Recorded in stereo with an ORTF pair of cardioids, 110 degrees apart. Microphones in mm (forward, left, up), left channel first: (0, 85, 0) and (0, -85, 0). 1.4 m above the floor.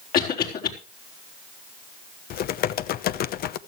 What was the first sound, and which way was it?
A cough, 60° left.